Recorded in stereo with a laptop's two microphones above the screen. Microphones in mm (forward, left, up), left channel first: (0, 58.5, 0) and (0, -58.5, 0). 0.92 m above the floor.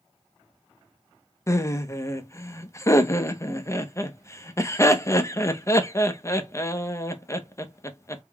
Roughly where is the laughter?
Left.